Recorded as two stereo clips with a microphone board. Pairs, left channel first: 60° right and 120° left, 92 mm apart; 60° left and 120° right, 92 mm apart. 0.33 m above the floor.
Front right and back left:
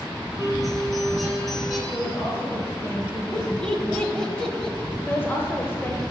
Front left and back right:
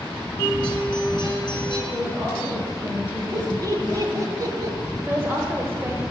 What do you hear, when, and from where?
0.4 s a guitar: 25° left, 3 m
1.9 s a woman speaking: 100° right, 3.5 m
3.3 s laughter: 140° right, 1.1 m
5.1 s a woman speaking: 90° right, 1.1 m